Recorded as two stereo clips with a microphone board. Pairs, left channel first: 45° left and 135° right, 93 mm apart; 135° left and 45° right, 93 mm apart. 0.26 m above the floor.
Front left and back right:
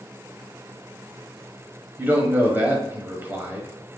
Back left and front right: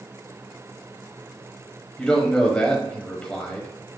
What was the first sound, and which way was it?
A man speaking, 160° right.